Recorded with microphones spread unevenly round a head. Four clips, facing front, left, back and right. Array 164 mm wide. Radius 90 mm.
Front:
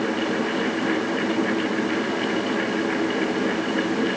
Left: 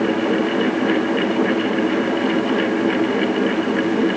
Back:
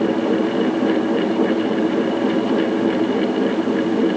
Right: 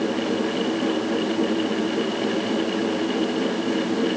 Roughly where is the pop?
No pop in this recording.